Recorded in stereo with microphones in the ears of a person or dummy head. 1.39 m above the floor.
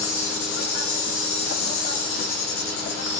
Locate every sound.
0.0 s an insect: 45° left (ahead or behind), 0.9 m